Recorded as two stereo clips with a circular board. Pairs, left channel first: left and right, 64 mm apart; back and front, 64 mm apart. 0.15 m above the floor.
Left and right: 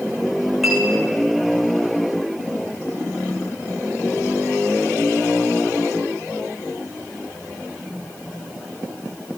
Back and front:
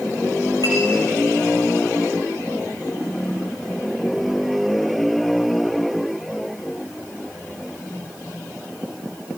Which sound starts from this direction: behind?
A clink, at 0.6 s.